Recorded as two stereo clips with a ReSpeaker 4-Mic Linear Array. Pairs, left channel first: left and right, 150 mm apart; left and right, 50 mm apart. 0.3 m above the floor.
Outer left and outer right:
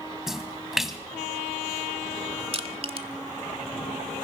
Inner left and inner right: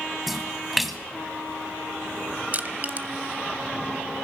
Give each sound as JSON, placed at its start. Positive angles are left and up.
{"t": 0.3, "sound": "a splash", "side_deg": 0, "distance_m": 1.1}
{"t": 2.5, "sound": "crushing", "side_deg": -40, "distance_m": 0.8}